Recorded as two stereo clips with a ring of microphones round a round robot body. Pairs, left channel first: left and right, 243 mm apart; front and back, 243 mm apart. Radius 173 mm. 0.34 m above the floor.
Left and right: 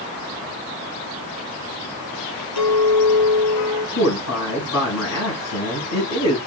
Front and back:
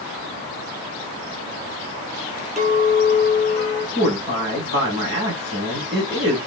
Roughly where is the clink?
Behind left.